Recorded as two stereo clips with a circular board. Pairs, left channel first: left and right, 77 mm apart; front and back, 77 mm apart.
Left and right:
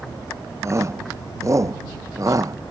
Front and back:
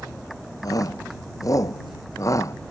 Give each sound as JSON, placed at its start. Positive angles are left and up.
{"t": 0.6, "sound": "a shout", "azimuth_deg": -40}